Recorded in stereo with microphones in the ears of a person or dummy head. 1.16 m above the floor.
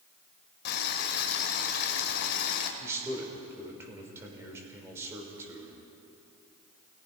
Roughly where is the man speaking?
Centre.